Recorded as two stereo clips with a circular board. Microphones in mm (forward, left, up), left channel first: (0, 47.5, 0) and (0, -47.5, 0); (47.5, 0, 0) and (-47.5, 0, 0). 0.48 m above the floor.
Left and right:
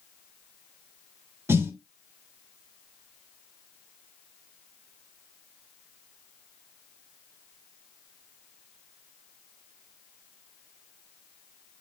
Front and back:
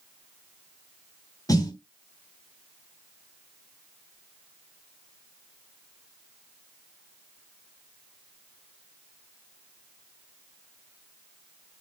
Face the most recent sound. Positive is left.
turn(degrees=-35)